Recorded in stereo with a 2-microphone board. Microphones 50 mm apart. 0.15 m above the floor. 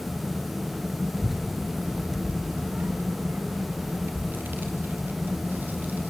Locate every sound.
1.2 s a child speaking: 5° right (ahead or behind), 1.8 m; by 6.1 s 40° right (ahead or behind), 4.5 m